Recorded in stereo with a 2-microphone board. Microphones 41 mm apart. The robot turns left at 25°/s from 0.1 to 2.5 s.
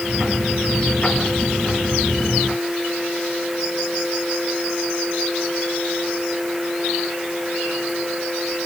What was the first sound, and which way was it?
Only background noise.